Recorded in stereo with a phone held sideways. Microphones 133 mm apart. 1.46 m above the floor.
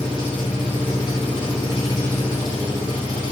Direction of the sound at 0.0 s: 40° left (ahead or behind).